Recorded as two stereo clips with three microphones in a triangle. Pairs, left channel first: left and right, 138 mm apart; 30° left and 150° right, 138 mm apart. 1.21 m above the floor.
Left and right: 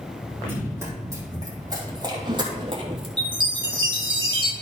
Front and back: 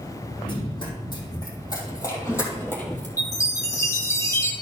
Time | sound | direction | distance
0.4 | running footsteps | 15° right | 3.5 m
3.2 | a chime | 40° right | 1.3 m